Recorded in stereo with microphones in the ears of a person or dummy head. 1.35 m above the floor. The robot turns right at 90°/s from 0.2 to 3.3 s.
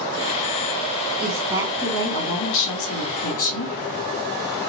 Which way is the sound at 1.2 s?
55° right.